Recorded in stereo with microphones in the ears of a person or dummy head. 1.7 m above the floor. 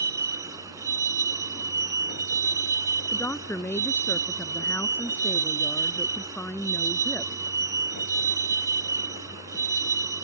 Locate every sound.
0.0 s a vehicle: 25° right (ahead or behind)
3.1 s a woman speaking: 10° left (ahead or behind)